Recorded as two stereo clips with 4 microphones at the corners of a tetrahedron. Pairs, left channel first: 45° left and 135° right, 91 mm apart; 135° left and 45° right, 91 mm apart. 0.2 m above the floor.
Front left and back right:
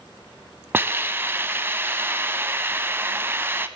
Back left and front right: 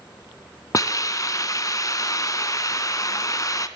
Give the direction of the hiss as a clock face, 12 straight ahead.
6 o'clock.